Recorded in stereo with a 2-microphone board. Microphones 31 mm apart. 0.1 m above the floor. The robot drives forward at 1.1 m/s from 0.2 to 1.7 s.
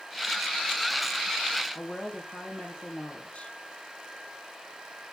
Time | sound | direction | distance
1.8 | a woman speaking | 40° left (ahead or behind) | 3 m